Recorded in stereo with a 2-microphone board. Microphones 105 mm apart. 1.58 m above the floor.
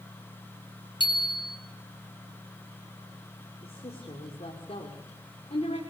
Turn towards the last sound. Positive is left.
turn(degrees=70)  # may be behind; listen again after turning